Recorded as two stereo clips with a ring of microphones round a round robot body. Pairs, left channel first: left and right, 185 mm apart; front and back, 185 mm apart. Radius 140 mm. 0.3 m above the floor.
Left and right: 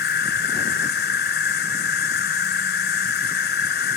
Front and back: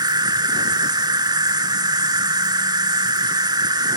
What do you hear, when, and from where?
0.0 s an insect: 115° left